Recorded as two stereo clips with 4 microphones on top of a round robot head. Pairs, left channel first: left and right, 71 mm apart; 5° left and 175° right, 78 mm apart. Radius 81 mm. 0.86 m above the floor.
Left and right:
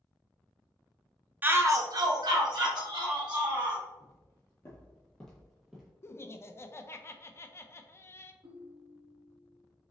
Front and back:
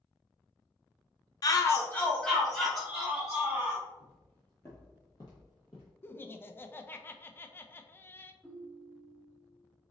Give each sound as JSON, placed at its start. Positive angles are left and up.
{"t": 1.4, "sound": "a shout", "azimuth_deg": -30, "distance_m": 0.8}
{"t": 4.0, "sound": "footsteps", "azimuth_deg": 80, "distance_m": 1.1}
{"t": 6.0, "sound": "laughter", "azimuth_deg": 55, "distance_m": 0.5}
{"t": 8.4, "sound": "a ringtone", "azimuth_deg": -75, "distance_m": 1.6}